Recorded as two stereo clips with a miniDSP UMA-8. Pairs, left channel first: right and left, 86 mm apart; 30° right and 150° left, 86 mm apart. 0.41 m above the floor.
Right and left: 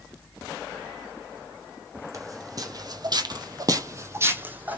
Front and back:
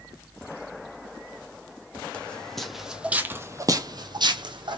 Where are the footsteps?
45° left, 0.9 m; by 4.8 s 160° left, 0.9 m.